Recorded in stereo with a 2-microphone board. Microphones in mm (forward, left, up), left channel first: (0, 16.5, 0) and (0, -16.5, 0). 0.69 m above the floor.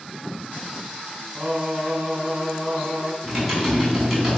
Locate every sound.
1.4 s singing: 25° right (ahead or behind), 5 m
3.2 s typing on a keyboard: centre (ahead or behind), 4.5 m